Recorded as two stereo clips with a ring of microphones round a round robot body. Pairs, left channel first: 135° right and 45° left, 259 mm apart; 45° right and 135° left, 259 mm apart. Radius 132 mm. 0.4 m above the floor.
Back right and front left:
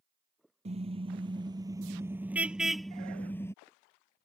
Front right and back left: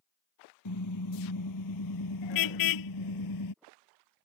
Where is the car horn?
20° right; by 3.5 s 55° right.